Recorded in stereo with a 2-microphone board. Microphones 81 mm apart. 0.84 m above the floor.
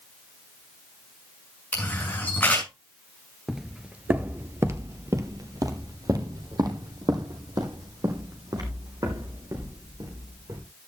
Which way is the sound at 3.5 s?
Centre (ahead or behind).